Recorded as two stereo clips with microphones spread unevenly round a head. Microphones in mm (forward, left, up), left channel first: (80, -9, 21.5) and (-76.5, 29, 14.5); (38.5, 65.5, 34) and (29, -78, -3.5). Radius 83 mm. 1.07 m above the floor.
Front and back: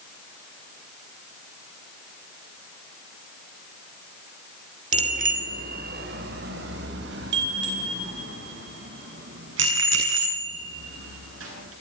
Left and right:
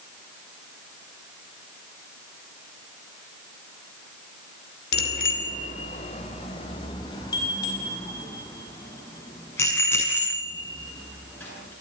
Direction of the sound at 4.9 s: 120° left.